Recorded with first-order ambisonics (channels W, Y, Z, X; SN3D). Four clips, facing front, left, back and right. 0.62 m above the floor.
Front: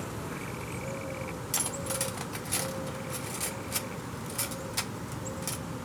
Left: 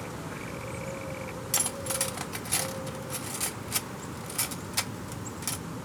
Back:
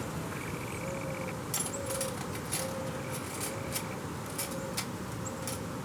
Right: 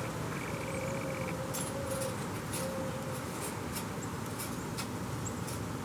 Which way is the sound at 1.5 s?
70° left.